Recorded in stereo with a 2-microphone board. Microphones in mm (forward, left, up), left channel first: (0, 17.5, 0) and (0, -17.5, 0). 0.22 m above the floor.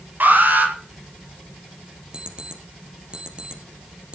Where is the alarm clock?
25° right (ahead or behind), 3.5 m.